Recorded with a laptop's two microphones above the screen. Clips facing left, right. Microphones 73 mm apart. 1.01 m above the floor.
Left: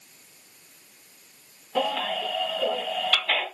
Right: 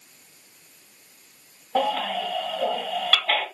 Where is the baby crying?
40° right (ahead or behind), 2 m.